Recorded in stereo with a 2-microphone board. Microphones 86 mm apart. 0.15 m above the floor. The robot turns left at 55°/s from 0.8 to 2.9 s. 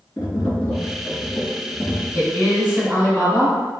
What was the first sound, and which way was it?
Tapping, 65° left.